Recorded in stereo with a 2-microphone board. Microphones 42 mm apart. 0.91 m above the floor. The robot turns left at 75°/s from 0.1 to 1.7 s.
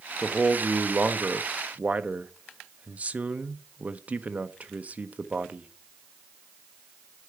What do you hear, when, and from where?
0.2 s a man speaking: 10° right, 0.7 m; by 5.7 s 125° right, 0.7 m